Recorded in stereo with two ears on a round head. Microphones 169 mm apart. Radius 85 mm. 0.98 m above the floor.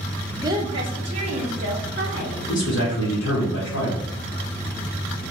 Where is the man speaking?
75° left (ahead or behind), 1.4 m.